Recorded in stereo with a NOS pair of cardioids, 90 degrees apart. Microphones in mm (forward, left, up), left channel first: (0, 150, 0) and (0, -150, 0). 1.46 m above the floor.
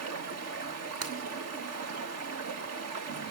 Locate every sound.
0.0 s running water: 55° right, 1.9 m
1.0 s breaking glass: 55° right, 2.5 m